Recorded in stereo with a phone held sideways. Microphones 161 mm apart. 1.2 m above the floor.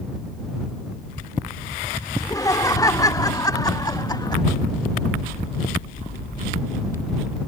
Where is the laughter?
20° left (ahead or behind); by 4.4 s 25° left (ahead or behind).